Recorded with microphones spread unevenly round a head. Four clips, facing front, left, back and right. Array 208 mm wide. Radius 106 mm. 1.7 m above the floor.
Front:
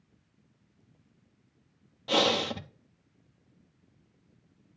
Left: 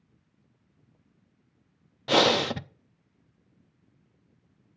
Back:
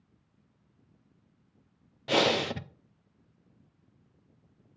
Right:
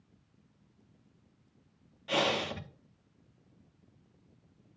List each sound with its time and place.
2.1 s breathing: 95° left, 0.5 m